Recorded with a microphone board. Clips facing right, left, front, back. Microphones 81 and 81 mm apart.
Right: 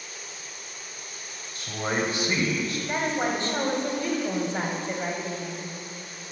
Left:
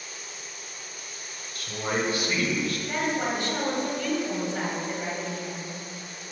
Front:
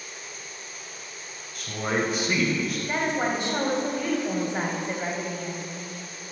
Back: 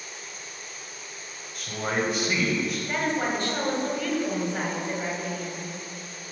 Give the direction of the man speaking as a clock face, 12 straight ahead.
3 o'clock.